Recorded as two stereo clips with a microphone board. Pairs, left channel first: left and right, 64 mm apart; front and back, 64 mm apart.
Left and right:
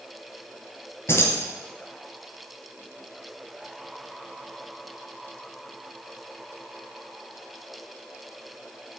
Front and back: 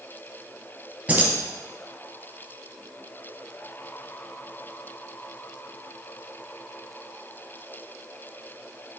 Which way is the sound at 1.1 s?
125° left.